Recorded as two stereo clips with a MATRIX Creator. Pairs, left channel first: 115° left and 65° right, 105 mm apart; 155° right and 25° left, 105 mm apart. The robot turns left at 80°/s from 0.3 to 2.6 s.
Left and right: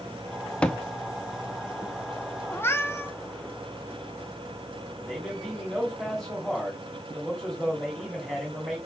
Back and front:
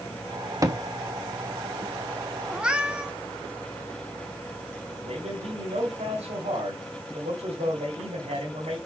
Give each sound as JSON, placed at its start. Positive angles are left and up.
{"t": 0.6, "sound": "a thud", "azimuth_deg": 40, "distance_m": 0.9}
{"t": 2.5, "sound": "a cat meowing", "azimuth_deg": 95, "distance_m": 1.0}
{"t": 5.0, "sound": "a man speaking", "azimuth_deg": 25, "distance_m": 3.0}